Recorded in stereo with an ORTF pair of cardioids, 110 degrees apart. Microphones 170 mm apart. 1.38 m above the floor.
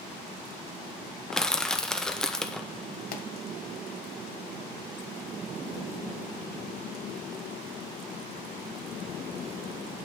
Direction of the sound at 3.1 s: 60° left.